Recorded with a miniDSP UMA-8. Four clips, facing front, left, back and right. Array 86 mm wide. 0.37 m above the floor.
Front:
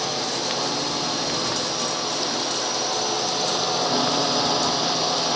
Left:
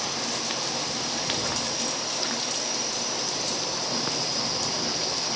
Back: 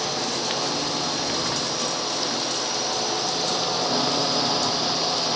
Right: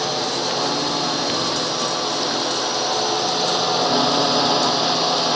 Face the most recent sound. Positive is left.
turn(degrees=-80)